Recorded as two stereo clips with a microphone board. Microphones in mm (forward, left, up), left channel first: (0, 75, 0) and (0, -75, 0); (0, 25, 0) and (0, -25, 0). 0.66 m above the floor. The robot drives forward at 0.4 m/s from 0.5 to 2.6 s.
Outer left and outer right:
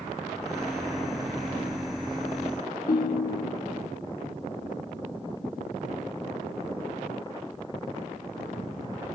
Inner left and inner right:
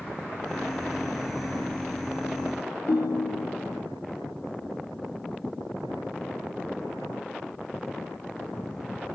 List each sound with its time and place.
2.9 s a ringtone: 70° left (ahead or behind), 0.5 m